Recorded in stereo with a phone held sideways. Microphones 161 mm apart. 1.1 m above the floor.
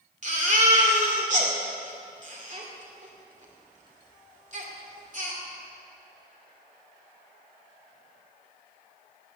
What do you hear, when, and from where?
0.2 s a baby crying: 50° right (ahead or behind), 2.5 m